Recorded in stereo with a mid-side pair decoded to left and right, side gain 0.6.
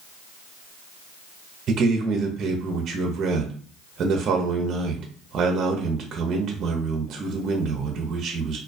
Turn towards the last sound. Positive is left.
turn(degrees=-45)